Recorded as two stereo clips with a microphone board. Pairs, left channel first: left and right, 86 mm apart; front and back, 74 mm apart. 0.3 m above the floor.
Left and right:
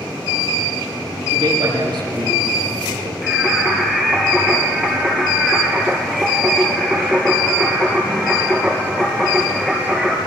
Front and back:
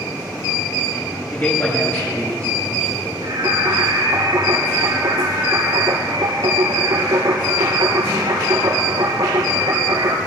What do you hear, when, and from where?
1.3 s a man speaking: 65° right, 6.5 m
3.2 s singing: straight behind, 3 m